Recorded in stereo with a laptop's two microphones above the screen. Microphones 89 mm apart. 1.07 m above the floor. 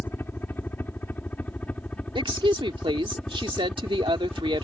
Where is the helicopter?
25° left (ahead or behind); by 4.6 s 5° left (ahead or behind).